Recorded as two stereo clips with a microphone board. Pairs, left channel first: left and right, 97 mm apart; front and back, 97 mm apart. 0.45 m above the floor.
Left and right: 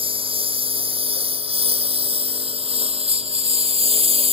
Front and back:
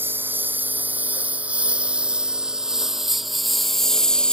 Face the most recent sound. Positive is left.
turn(degrees=-80)